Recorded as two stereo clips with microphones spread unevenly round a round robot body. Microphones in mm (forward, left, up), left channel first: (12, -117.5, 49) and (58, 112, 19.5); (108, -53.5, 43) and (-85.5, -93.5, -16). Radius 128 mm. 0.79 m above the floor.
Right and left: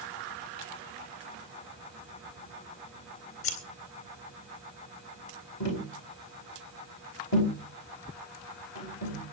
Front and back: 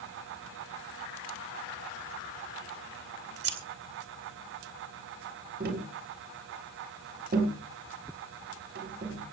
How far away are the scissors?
About 3 m.